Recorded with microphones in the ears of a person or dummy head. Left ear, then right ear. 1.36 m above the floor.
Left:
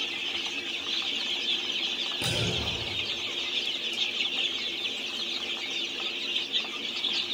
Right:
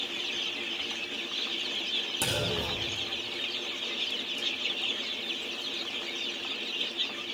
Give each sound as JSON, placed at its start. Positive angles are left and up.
{"t": 2.2, "sound": "a clunk", "side_deg": -40, "distance_m": 2.5}